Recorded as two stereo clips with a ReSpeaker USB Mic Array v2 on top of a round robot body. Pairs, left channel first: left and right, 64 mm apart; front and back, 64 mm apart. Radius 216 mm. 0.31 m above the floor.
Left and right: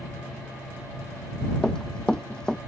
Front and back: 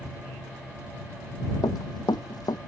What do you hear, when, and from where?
1.6 s running footsteps: 10° left